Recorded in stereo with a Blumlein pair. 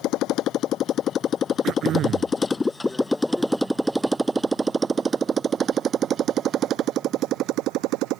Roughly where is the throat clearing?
Ahead right.